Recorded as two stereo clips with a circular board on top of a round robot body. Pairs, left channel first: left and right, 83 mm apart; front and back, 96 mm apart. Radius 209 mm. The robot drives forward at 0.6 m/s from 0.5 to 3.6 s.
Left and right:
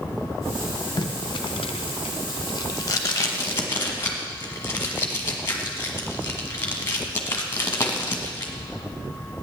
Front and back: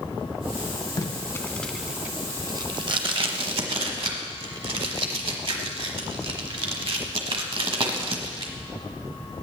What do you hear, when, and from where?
1.0 s tape being pulled: 50° left, 0.7 m; by 8.5 s 155° left, 1.2 m